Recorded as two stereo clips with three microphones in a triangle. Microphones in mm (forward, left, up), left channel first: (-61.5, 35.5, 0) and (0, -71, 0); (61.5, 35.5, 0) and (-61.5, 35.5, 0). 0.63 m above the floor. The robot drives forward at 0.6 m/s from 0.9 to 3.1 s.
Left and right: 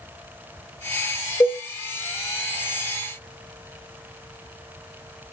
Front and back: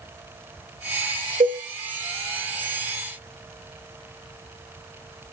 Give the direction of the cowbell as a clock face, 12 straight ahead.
6 o'clock.